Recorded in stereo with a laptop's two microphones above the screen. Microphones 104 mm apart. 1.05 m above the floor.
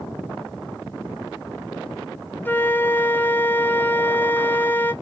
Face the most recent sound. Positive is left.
turn(degrees=20)  # may be behind; listen again after turning